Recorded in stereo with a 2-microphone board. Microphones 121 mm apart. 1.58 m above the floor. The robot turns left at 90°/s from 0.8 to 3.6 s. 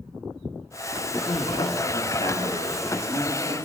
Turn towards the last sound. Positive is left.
turn(degrees=-65)